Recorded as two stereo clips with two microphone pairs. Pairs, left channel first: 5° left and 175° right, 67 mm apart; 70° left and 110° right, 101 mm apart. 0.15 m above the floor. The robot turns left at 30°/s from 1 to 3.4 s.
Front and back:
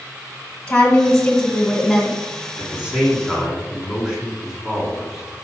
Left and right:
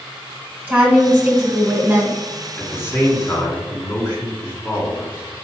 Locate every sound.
0.7 s a woman speaking: 60° right, 1.8 m; by 2.2 s 95° right, 1.8 m
2.6 s a man speaking: 125° left, 1.9 m; by 5.3 s 100° left, 1.9 m